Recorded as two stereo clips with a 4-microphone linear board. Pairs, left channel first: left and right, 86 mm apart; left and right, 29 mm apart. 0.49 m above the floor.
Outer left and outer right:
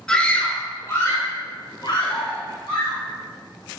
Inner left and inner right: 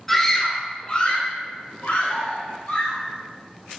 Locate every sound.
0.1 s a scream: 10° left (ahead or behind), 1.1 m; by 3.0 s 75° left (ahead or behind), 3.5 m